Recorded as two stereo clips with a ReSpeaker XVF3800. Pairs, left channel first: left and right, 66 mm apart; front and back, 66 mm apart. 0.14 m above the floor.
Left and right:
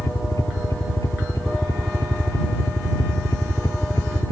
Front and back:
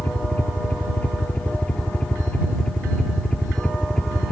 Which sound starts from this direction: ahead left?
A helicopter, at 0.0 s.